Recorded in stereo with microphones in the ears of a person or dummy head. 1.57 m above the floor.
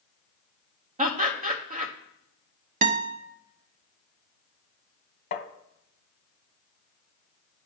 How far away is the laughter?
About 1.1 m.